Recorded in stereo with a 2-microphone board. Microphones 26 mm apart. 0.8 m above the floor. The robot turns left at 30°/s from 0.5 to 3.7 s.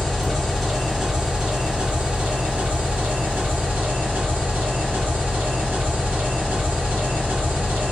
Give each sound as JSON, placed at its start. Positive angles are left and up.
{"t": 0.0, "sound": "an engine running", "azimuth_deg": 0, "distance_m": 1.7}